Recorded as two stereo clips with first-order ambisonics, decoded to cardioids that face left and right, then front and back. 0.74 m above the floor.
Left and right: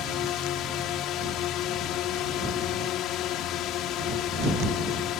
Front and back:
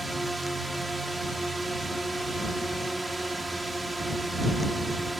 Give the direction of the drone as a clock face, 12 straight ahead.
9 o'clock.